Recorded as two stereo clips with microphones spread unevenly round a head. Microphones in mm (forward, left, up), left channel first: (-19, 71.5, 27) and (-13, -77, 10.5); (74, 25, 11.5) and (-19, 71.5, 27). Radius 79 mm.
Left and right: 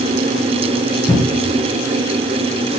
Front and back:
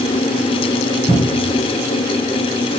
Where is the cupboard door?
135° left, 7 m.